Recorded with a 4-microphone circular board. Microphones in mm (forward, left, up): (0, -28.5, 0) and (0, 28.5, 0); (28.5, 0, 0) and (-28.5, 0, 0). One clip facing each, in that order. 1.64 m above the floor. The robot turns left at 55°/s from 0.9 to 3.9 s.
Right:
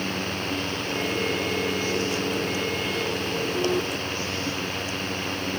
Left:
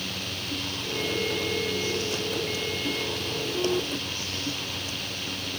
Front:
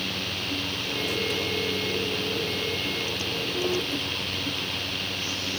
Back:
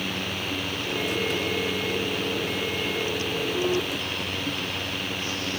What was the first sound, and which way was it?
Only background noise.